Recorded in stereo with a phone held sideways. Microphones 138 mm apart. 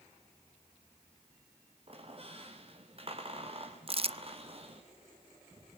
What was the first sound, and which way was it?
A squeak, 45° right (ahead or behind).